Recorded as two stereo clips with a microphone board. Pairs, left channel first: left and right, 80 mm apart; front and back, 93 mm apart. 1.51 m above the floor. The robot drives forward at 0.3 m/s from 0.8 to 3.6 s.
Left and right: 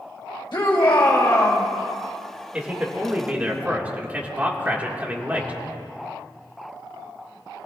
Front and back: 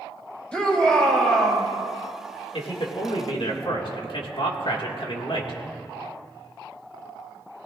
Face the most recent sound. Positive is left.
turn(degrees=-20)